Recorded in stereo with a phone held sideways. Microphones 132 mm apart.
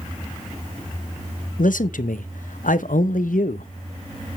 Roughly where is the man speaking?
Left.